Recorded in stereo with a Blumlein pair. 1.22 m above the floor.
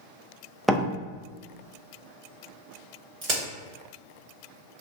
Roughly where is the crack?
Ahead right.